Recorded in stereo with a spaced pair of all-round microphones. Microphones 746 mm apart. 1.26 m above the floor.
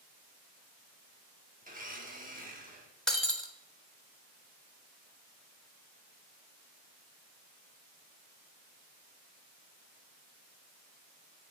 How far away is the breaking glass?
About 1.1 m.